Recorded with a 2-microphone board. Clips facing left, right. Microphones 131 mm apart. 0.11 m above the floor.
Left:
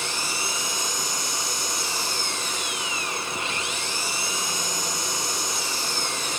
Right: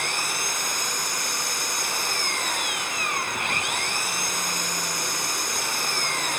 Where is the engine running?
55° right (ahead or behind).